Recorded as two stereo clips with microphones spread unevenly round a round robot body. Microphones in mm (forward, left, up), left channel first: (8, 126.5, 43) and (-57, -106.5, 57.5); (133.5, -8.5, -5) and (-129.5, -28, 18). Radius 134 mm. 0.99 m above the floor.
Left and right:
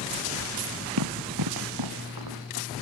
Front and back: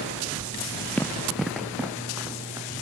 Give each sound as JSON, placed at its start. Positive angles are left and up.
{"t": 1.0, "sound": "running footsteps", "azimuth_deg": -80}